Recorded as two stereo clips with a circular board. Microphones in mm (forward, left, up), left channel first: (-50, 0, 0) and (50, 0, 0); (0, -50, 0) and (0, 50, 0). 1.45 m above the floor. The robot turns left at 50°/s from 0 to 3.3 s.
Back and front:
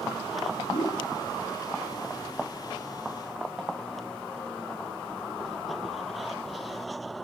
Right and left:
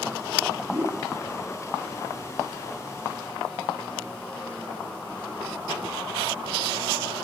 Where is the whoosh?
165° left, 8.5 m; by 1.1 s 145° left, 8.5 m.